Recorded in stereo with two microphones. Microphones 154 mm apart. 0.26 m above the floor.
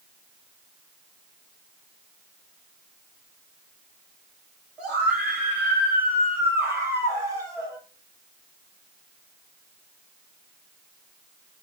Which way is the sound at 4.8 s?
5° right (ahead or behind).